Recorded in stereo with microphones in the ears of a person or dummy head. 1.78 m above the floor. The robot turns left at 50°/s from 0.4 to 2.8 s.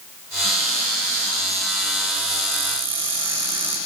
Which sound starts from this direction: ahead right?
A cupboard door, at 0.4 s.